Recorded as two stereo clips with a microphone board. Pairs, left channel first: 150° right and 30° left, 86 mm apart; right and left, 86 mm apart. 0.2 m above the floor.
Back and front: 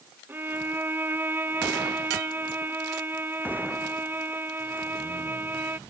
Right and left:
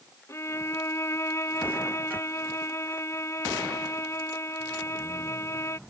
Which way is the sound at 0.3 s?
35° right.